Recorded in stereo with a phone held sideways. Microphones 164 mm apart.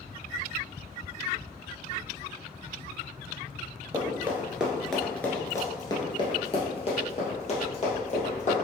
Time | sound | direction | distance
3.9 | running footsteps | 20° right (ahead or behind) | 1.1 m